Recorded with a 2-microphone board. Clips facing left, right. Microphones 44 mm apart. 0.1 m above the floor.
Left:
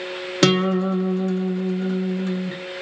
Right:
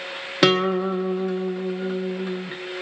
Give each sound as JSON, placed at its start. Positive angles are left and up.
{"t": 0.4, "sound": "a guitar", "side_deg": -10, "distance_m": 1.5}